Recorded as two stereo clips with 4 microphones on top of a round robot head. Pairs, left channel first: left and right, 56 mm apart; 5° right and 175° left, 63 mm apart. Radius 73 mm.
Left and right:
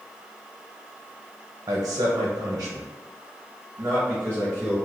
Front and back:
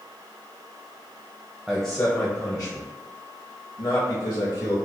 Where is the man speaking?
105° right, 0.7 m; by 4.8 s 30° right, 2.5 m.